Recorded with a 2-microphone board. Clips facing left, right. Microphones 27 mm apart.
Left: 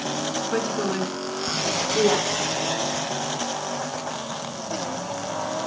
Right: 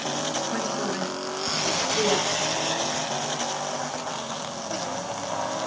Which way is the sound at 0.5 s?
60° left (ahead or behind).